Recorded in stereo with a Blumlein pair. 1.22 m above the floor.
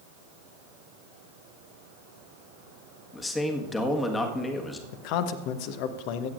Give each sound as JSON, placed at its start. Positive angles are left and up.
{"t": 3.1, "sound": "a man speaking", "azimuth_deg": 10, "distance_m": 1.5}
{"t": 4.9, "sound": "a man speaking", "azimuth_deg": 45, "distance_m": 0.9}